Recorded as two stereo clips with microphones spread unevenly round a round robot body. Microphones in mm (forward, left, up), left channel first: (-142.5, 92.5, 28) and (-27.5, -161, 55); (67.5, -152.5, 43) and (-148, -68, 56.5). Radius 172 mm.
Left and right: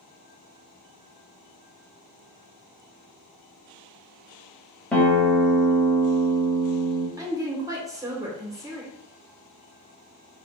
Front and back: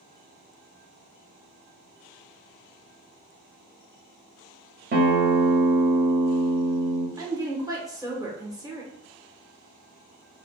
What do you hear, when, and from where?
4.9 s a guitar: 160° right, 1.2 m
7.2 s a woman speaking: 140° right, 1.3 m